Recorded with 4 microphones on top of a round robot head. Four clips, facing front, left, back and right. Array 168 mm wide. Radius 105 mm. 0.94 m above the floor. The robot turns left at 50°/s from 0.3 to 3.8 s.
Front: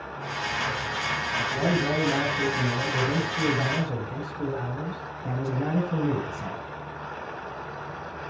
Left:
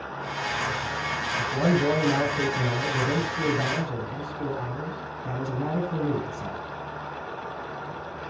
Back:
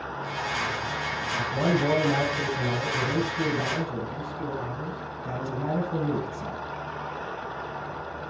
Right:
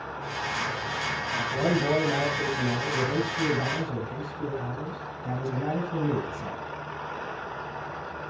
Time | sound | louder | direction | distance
1.4 | a man speaking | left 2 dB, back 2 dB | 140° left | 7 m